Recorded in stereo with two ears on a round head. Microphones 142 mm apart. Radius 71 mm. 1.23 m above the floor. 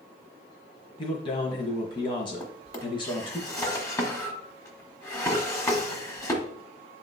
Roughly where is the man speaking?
Left.